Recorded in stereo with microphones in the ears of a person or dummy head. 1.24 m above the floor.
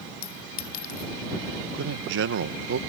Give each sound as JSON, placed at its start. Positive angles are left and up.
{"t": 0.2, "sound": "a clink", "side_deg": 45}
{"t": 1.7, "sound": "a man speaking", "side_deg": -65}